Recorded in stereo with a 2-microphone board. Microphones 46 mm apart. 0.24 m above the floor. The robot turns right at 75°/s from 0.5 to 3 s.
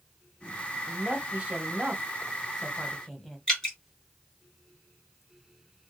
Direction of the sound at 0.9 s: 15° right (ahead or behind).